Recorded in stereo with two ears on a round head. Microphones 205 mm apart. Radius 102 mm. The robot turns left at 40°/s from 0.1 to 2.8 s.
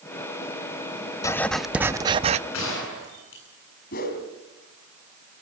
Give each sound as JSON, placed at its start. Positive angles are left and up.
{"t": 1.2, "sound": "writing", "azimuth_deg": 15, "distance_m": 0.5}
{"t": 2.5, "sound": "a gunshot", "side_deg": 65, "distance_m": 9.0}
{"t": 3.9, "sound": "a whoosh", "side_deg": 40, "distance_m": 3.0}